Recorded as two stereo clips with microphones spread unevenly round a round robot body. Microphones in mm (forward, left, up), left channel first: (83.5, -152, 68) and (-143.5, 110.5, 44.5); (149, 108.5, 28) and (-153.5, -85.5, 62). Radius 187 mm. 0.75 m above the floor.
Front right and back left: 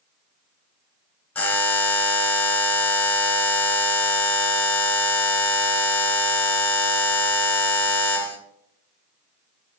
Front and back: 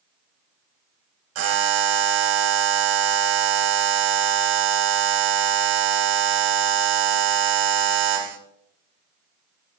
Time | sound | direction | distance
1.4 | a buzzer | 135° right | 2.5 m